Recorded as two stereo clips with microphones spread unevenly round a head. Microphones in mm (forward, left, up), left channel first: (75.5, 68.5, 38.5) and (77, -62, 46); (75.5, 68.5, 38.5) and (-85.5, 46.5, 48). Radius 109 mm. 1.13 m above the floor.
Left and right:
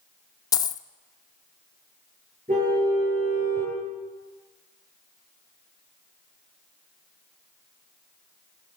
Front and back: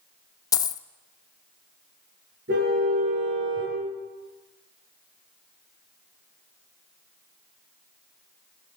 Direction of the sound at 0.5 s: 60° left.